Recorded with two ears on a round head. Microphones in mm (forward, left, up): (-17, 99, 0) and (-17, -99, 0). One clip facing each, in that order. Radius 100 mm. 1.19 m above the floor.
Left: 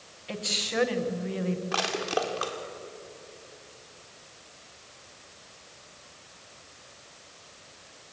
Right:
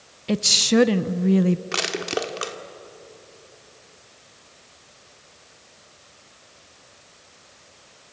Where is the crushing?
30° right (ahead or behind), 1.6 m.